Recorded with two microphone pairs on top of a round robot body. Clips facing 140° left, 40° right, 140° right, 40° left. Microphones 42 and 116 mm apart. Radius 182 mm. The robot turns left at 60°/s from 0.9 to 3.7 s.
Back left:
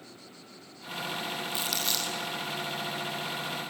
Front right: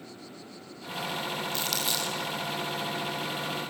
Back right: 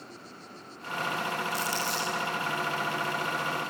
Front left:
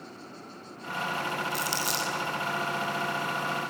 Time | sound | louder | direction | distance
1.5 | crumpling | front right 1 dB, even | 70° left | 7 m